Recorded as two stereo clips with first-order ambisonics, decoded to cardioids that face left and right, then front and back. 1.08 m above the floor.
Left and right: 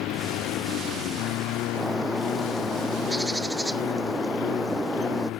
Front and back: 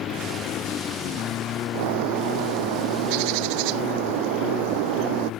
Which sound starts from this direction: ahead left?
A lawn mower, at 0.0 s.